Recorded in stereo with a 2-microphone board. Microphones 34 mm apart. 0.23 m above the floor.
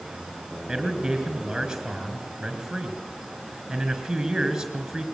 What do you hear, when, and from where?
0.7 s a man speaking: 10° right (ahead or behind), 4 m